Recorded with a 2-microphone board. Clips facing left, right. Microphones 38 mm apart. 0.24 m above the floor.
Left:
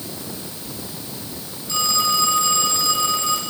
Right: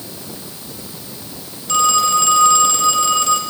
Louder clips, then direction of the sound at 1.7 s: Right 6 dB; 65° right (ahead or behind).